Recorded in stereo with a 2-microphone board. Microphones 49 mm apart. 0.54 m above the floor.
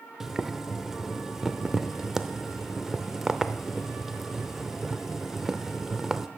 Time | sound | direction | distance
0.2 | boiling | 5° right (ahead or behind) | 0.5 m